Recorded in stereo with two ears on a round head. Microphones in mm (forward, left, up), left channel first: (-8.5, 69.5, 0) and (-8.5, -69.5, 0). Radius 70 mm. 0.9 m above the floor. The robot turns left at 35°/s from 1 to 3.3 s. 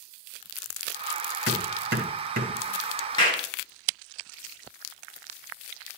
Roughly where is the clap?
Left.